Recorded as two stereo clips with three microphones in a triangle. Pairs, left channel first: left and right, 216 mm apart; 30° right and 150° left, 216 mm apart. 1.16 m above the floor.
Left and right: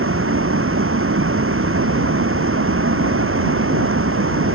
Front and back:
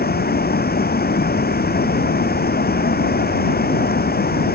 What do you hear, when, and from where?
0.0 s running water: 75° right